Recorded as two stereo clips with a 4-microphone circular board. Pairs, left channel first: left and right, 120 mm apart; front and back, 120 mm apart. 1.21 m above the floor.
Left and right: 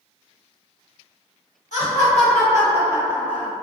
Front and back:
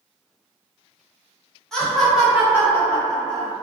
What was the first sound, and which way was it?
Laughter, 85° left.